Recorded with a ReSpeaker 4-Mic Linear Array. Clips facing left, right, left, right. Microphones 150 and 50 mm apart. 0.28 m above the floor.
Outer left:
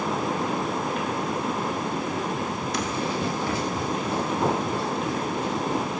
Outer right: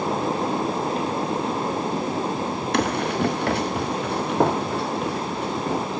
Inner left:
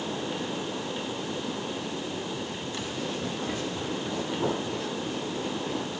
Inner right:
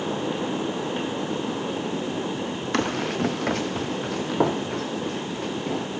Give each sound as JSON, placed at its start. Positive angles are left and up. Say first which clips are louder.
{"t": 2.7, "sound": "running footsteps", "louder": "outer right 6 dB, inner right 10 dB", "side_deg": -70, "distance_m": 0.8}